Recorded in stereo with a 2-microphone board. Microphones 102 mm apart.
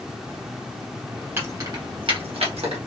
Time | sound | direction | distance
1.4 | keys jangling | 20° right (ahead or behind) | 1.0 m